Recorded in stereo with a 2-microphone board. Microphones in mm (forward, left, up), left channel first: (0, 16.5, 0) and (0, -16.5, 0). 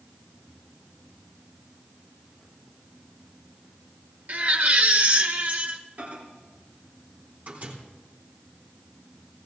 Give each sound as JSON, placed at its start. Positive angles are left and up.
{"t": 4.3, "sound": "a baby crying", "side_deg": -55, "distance_m": 1.6}
{"t": 6.0, "sound": "a microwave", "side_deg": -55, "distance_m": 3.5}